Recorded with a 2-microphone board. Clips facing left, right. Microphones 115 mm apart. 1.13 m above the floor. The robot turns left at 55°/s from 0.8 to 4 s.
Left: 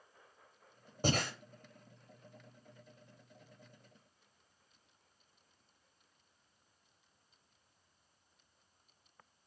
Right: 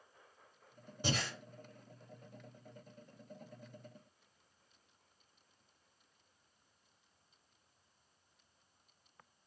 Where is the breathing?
45° left (ahead or behind), 0.6 m; by 1.3 s 50° left (ahead or behind), 0.6 m.